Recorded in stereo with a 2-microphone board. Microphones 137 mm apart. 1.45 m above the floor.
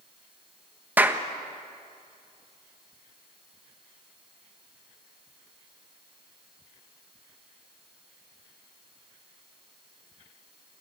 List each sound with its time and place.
1.0 s a clap: 15° right (ahead or behind), 1.3 m